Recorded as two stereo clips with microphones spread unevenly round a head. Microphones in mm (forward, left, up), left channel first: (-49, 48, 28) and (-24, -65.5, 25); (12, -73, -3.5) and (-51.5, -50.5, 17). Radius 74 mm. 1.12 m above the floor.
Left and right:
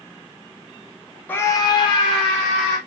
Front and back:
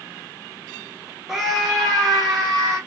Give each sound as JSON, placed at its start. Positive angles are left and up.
{"t": 1.3, "sound": "a scream", "azimuth_deg": 45, "distance_m": 0.6}